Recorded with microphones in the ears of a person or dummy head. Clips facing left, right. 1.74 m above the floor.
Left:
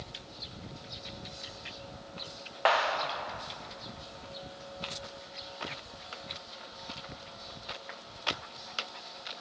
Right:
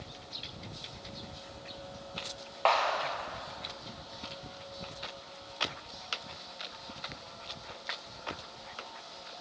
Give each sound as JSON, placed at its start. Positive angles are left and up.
{"t": 2.6, "sound": "a clap", "side_deg": 15, "distance_m": 1.1}